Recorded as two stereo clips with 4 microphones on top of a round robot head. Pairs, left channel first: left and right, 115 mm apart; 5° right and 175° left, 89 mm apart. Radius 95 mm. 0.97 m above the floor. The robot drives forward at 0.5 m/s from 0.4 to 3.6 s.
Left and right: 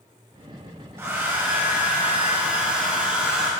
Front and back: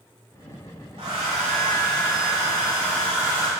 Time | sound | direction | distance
1.0 | a hair dryer | 150° right | 0.9 m